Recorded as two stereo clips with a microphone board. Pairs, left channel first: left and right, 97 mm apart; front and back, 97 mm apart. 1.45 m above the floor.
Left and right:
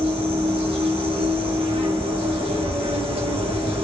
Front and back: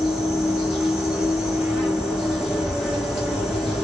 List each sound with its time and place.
0.0 s an insect: 95° right, 0.8 m